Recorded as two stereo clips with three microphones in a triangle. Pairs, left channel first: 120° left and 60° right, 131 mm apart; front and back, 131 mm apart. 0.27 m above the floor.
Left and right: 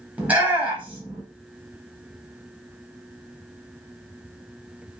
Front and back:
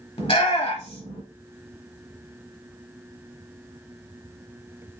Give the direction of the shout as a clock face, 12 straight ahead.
12 o'clock.